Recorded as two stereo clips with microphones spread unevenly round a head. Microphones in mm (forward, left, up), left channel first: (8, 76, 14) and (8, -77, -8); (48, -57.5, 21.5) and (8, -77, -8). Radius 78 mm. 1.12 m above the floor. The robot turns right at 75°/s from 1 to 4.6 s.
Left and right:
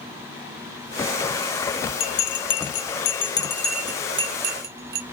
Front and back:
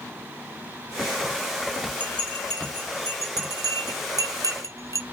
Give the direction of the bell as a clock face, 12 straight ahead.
10 o'clock.